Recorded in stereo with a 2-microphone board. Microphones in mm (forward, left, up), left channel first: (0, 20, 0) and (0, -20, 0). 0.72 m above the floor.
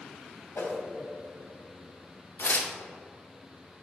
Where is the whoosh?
75° left (ahead or behind), 1.1 m.